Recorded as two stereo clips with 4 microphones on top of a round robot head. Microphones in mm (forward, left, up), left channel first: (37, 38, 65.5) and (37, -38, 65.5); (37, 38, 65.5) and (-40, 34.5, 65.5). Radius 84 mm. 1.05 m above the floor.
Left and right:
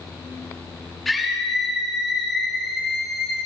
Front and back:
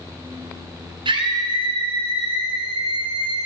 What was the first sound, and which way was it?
A scream, 175° left.